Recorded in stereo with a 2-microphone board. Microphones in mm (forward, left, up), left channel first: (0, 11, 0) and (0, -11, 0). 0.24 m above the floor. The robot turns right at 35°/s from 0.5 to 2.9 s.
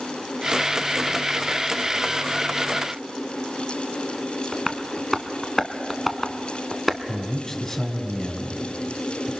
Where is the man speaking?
20° left (ahead or behind), 2 m.